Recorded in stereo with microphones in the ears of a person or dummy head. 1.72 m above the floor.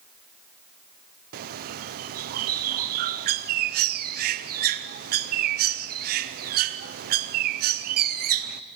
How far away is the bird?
About 0.8 m.